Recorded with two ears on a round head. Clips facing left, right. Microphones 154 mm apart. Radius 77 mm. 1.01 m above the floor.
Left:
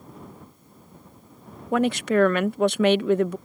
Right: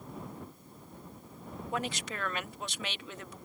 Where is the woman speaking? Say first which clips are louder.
Left 16 dB; 50° left (ahead or behind).